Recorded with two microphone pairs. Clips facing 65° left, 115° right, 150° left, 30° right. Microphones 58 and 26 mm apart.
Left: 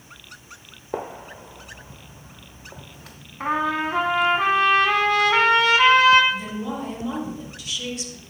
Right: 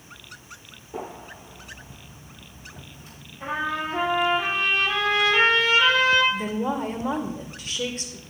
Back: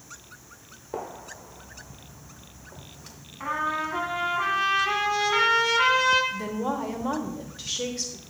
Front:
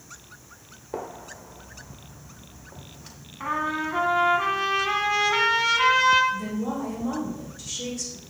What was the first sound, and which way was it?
A gunshot, 55° left.